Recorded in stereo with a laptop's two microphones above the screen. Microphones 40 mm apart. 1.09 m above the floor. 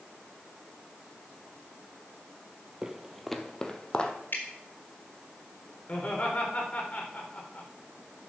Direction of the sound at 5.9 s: 40° left (ahead or behind).